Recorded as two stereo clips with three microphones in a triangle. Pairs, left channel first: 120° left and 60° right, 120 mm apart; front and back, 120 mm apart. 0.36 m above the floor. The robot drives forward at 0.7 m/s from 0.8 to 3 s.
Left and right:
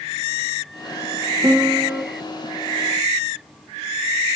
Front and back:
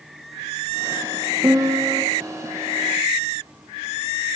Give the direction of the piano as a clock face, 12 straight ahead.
4 o'clock.